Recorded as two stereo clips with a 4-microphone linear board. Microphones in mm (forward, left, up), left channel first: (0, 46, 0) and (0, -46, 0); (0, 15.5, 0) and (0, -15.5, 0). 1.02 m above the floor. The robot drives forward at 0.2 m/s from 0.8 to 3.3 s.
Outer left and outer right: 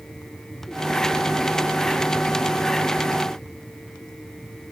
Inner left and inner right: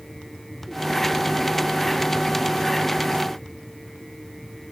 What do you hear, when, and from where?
Only background noise.